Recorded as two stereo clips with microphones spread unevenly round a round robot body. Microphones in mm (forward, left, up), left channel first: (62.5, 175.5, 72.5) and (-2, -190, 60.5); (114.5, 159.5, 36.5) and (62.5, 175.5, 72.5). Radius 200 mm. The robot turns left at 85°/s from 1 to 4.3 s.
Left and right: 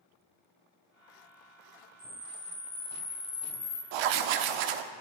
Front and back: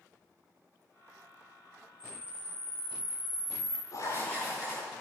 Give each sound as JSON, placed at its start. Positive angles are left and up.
{"t": 2.0, "sound": "a camera shutter", "azimuth_deg": -155, "distance_m": 5.0}
{"t": 3.9, "sound": "writing", "azimuth_deg": -75, "distance_m": 0.7}